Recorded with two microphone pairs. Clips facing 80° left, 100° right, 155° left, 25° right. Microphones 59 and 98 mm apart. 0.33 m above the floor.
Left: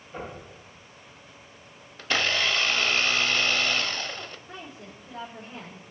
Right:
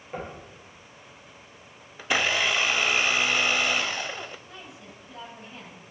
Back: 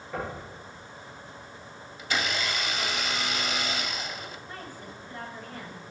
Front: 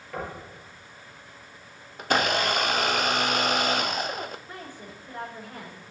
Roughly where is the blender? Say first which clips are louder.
Right 1 dB, front 7 dB; ahead right.